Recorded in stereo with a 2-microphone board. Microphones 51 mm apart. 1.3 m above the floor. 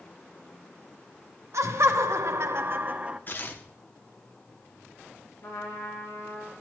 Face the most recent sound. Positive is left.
turn(degrees=60)  # may be behind; listen again after turning